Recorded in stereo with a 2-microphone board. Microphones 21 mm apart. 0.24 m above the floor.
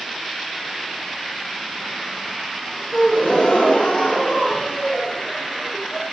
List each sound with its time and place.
2.9 s a gasp: 65° left (ahead or behind), 5.5 m